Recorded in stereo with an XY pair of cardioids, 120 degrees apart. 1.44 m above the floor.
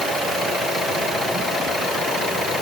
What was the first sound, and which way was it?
Only background noise.